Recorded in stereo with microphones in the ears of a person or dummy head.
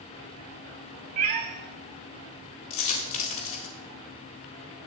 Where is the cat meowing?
35° right (ahead or behind), 1.0 m.